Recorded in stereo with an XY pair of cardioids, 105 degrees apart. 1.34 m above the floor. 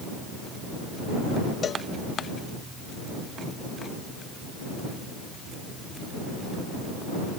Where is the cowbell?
45° left.